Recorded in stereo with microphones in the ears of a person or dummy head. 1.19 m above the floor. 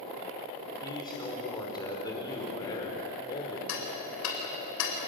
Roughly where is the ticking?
Left.